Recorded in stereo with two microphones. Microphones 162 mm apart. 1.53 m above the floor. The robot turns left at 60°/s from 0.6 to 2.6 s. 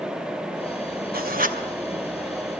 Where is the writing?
65° right (ahead or behind), 2.5 m; by 1.6 s 55° right (ahead or behind), 2.5 m.